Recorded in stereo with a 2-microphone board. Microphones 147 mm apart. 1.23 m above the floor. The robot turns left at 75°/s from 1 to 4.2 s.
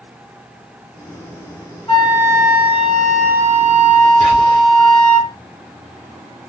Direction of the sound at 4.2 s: 55° right (ahead or behind).